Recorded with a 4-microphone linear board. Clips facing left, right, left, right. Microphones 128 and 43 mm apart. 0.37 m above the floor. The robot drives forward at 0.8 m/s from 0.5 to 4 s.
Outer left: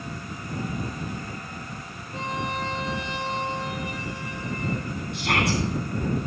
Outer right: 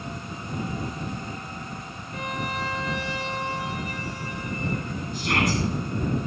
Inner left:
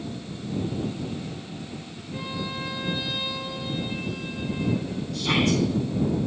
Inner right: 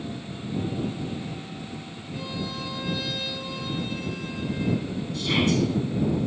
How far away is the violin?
About 1.2 m.